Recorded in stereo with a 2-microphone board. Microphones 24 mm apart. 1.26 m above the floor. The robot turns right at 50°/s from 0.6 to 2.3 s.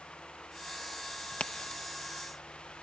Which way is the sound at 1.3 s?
70° left (ahead or behind).